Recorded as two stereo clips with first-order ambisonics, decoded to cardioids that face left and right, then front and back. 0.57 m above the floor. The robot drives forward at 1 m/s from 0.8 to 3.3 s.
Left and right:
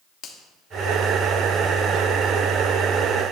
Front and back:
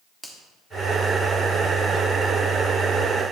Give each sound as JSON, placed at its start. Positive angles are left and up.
{"t": 0.2, "sound": "a finger snap", "azimuth_deg": 100, "distance_m": 1.4}